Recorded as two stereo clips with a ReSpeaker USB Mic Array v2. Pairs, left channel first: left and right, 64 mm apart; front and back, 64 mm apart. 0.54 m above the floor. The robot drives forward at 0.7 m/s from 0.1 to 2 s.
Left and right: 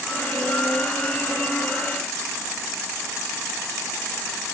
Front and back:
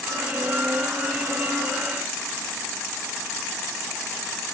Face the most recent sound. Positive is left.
No sound to turn to.